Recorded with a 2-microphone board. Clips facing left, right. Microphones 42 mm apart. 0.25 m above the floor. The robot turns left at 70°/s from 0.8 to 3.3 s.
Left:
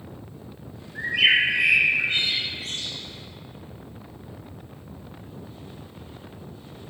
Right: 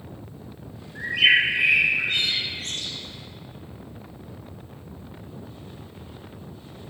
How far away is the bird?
About 2.5 m.